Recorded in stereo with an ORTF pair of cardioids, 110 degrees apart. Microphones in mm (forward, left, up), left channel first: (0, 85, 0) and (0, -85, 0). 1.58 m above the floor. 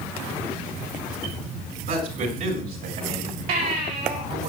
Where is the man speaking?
65° right, 7 m; by 4.5 s 75° right, 6 m.